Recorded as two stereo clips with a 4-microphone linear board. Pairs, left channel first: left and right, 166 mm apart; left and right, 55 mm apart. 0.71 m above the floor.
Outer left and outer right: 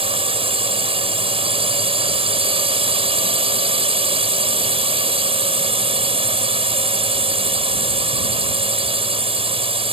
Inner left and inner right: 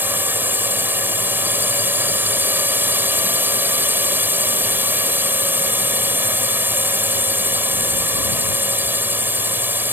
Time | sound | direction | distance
0.0 | a drone | 35° right (ahead or behind) | ?